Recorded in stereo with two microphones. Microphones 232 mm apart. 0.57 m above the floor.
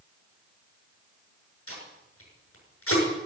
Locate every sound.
1.7 s tape being pulled: 75° left (ahead or behind), 7 m